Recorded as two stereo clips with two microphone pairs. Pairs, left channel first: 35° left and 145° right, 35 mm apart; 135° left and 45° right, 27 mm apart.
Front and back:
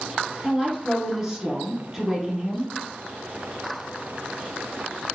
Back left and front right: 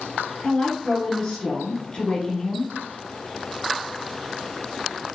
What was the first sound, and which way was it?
A woman speaking, 145° left.